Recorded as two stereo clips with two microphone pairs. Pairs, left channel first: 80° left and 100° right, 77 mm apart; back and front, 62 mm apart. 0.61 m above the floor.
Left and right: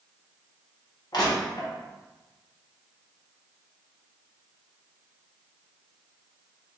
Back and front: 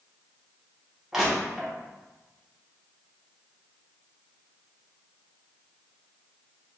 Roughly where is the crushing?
Left.